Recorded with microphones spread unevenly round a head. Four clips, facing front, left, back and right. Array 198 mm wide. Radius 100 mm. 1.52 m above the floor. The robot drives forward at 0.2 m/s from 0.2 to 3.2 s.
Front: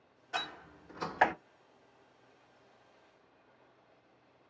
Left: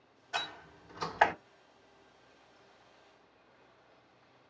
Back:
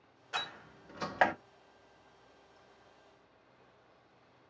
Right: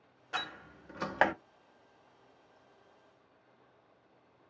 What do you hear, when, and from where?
0.3 s a door slam: 100° right, 2 m; by 1.3 s 105° right, 2 m